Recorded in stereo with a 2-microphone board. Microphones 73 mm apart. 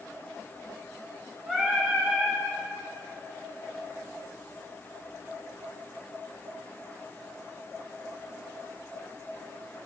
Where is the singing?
5° right (ahead or behind), 1.5 m.